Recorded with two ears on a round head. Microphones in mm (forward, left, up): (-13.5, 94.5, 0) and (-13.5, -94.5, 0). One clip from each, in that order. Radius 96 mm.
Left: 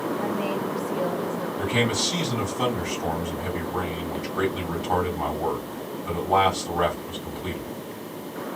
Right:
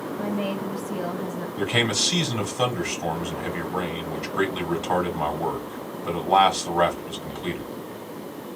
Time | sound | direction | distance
0.2 | a woman speaking | 65° right (ahead or behind) | 3 m
1.6 | a man speaking | 70° right (ahead or behind) | 2.5 m